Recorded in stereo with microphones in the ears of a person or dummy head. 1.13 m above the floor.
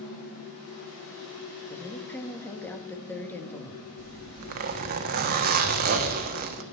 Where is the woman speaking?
10° left (ahead or behind), 1.8 m.